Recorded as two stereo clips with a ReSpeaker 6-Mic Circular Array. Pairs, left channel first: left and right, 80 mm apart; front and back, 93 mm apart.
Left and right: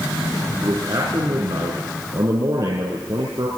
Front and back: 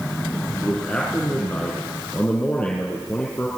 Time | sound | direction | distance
0.6 | a man speaking | 75° right | 3 m